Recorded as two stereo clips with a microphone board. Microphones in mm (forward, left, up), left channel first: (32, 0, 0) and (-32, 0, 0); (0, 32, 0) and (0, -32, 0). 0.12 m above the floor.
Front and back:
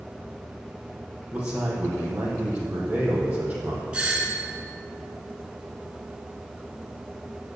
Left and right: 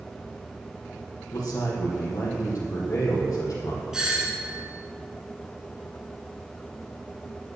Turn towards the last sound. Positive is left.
turn(degrees=-150)